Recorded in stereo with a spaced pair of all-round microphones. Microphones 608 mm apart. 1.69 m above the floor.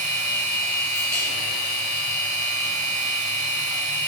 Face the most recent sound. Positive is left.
turn(degrees=45)  # may be behind; listen again after turning